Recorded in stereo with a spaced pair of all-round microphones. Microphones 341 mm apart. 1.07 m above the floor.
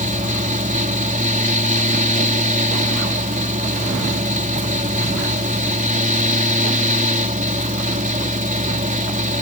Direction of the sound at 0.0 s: 20° right (ahead or behind).